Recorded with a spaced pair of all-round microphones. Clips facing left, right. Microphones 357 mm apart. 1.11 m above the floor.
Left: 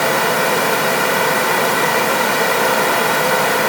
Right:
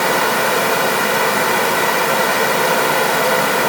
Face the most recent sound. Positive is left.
No sound to turn to.